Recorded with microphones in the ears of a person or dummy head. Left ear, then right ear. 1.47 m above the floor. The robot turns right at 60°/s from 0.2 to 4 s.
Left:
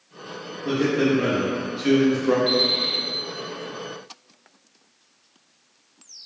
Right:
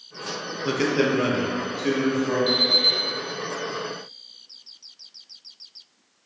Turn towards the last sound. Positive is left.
turn(degrees=80)